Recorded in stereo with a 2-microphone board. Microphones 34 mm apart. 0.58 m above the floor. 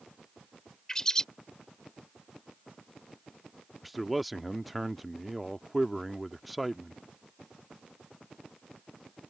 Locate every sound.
0.9 s a bird: 20° left (ahead or behind)
3.8 s a man speaking: 5° right (ahead or behind)